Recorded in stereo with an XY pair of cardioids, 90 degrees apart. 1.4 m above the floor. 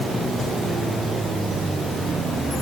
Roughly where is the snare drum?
I don't hear a snare drum.